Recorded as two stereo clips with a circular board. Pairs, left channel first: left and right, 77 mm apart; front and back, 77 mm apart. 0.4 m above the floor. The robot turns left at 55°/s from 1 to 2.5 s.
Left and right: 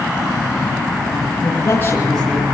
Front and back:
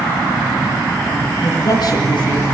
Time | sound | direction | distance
1.4 | a man speaking | 45° left | 7.5 m